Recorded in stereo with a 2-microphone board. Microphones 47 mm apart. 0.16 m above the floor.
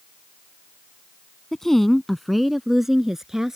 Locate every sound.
1.5 s a woman speaking: 10° left (ahead or behind); by 3.6 s 10° right (ahead or behind)